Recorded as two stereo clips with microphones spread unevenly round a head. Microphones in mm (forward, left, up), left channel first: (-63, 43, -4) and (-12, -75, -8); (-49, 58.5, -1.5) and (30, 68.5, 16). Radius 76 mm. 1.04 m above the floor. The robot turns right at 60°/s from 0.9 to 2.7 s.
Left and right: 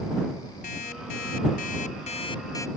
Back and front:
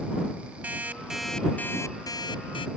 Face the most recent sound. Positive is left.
turn(degrees=-175)